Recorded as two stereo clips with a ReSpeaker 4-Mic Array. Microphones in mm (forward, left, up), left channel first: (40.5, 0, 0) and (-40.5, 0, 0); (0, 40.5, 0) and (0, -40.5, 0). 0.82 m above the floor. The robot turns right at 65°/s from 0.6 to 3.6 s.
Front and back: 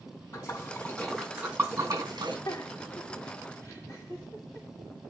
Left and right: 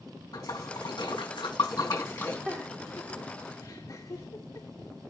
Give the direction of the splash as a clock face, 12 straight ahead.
10 o'clock.